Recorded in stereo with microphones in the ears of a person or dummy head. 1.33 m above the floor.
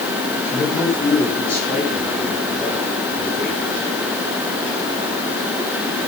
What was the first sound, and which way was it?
A man speaking, 5° left (ahead or behind).